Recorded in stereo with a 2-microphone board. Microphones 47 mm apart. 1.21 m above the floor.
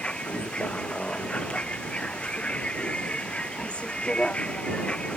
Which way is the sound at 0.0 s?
25° left (ahead or behind).